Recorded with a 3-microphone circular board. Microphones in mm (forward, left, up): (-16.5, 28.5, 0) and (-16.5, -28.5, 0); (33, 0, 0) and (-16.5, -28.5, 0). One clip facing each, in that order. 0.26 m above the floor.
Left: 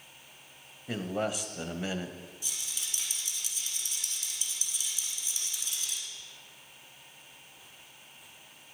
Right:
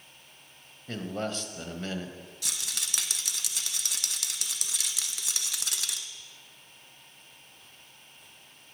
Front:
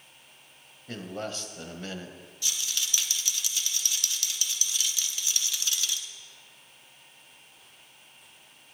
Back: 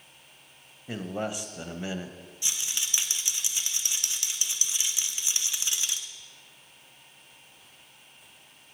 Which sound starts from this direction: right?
A rattle, at 2.4 s.